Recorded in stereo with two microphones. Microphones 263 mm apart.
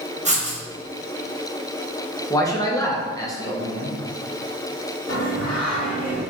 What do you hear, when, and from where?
0.2 s writing: 25° right (ahead or behind), 0.9 m
2.3 s a man speaking: 10° left (ahead or behind), 0.9 m
5.1 s singing: 80° left, 1.3 m